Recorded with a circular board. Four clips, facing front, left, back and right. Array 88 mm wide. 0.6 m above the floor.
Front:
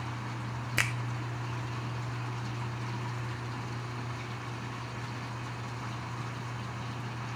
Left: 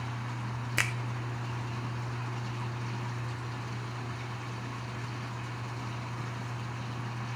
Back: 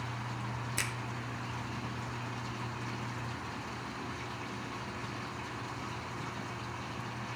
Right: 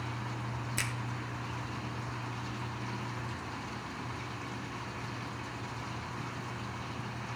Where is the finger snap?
45° left, 0.7 m.